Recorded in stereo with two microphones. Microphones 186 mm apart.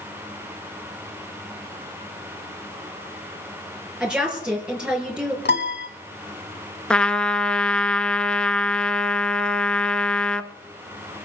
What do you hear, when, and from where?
4.0 s a woman speaking: 5° right (ahead or behind), 4.5 m
5.5 s a piano: 65° left (ahead or behind), 1.5 m
6.9 s a trumpet: 5° left (ahead or behind), 0.7 m